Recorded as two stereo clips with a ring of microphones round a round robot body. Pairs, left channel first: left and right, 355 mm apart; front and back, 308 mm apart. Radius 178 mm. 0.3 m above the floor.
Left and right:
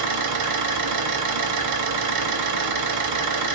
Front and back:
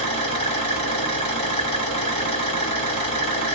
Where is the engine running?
65° right, 1.0 m.